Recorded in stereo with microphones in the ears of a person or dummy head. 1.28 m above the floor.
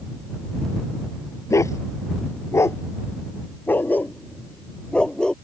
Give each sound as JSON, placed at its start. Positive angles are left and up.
{"t": 1.5, "sound": "a dog barking", "side_deg": 15}